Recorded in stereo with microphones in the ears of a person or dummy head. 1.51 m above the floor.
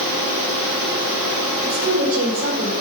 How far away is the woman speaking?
About 5.5 m.